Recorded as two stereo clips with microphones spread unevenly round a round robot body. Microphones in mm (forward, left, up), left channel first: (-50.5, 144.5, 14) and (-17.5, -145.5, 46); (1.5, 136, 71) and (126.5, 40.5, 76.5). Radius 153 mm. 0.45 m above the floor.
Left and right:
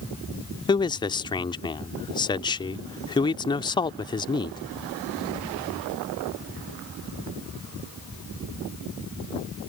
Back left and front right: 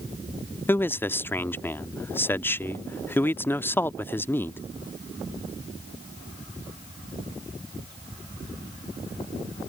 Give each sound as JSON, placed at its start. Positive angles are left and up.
{"t": 0.7, "sound": "a man speaking", "azimuth_deg": 100}